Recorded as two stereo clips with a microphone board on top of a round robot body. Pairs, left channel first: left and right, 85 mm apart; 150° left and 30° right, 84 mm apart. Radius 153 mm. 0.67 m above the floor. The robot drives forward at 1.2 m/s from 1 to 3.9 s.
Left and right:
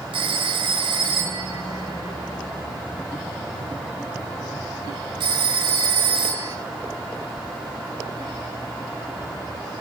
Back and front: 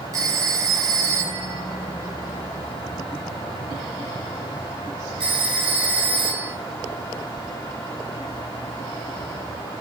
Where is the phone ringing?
80° right, 8 m; by 6.5 s 105° right, 8 m.